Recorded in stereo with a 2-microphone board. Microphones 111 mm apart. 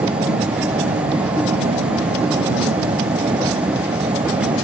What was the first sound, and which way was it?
An aircraft, 65° right (ahead or behind).